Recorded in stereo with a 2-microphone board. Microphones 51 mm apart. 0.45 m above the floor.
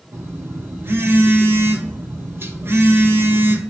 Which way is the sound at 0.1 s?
50° right (ahead or behind).